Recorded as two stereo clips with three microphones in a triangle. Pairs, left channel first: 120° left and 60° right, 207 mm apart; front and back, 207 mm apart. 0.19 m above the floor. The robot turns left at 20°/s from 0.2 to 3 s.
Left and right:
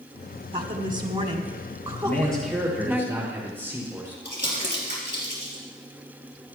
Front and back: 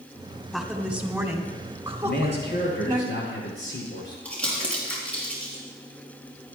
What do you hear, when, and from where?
0.5 s a woman speaking: 90° right, 1.3 m; by 3.0 s 140° right, 1.3 m
2.0 s a man speaking: 40° left, 5 m; by 4.2 s 20° left, 5 m
4.2 s crumpling: 85° left, 5 m